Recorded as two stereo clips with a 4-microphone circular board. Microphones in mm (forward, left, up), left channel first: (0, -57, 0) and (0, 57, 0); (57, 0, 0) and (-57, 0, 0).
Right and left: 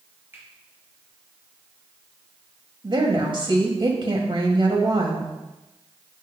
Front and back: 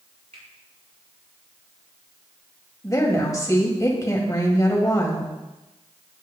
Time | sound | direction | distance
0.3 | a finger snap | 160° left | 5 m
2.8 | a woman speaking | 55° left | 2 m